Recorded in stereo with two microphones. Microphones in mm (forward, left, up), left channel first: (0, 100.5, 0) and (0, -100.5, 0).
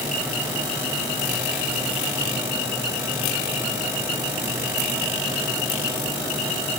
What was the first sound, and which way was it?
Only background noise.